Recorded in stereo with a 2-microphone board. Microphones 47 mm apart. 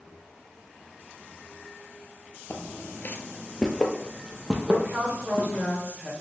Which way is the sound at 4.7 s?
35° right (ahead or behind).